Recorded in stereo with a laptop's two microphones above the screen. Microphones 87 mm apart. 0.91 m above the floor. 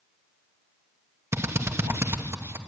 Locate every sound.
1.3 s a drill: 30° right (ahead or behind), 1.0 m